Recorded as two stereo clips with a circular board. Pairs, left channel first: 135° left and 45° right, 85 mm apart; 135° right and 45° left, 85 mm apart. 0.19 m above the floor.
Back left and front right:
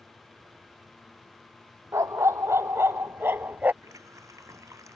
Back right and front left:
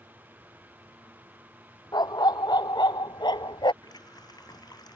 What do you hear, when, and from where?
1.9 s a dog barking: 100° right; by 3.7 s 115° right
3.8 s a running tap: 95° right